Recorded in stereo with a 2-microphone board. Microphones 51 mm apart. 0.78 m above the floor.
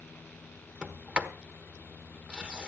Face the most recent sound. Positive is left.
turn(degrees=-20)  # may be behind; listen again after turning